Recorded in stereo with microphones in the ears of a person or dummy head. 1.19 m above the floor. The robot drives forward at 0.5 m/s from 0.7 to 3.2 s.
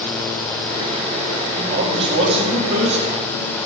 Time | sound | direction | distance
1.6 | a man speaking | 25° right (ahead or behind) | 2.5 m